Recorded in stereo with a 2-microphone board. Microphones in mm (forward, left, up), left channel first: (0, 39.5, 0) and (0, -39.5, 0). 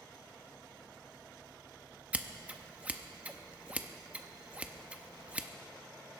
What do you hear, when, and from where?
2.1 s scissors: 15° right (ahead or behind), 0.7 m